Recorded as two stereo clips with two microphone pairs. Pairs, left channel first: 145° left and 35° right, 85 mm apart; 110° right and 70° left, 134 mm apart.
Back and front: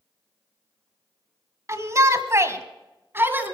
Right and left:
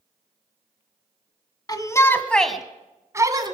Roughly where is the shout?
Right.